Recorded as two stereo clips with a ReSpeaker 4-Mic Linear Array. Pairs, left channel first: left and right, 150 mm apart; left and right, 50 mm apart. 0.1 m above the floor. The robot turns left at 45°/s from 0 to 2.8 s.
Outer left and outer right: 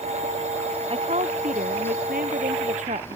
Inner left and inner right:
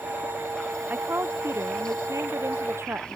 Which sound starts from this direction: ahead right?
A woman speaking, at 0.9 s.